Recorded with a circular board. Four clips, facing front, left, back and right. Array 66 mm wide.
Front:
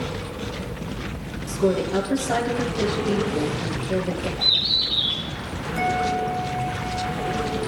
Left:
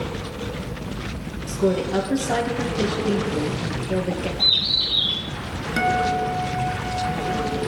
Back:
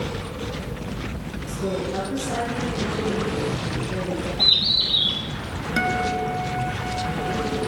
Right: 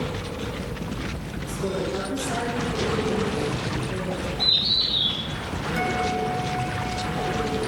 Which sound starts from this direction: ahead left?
A woman speaking, at 1.5 s.